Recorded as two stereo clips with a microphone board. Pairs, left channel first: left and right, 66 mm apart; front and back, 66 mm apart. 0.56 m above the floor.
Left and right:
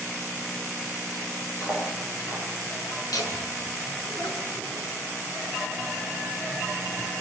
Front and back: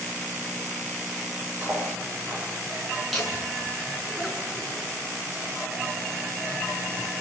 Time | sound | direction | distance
1.6 | cutlery clinking | 125° left | 8.5 m
3.1 | laughter | 90° left | 6 m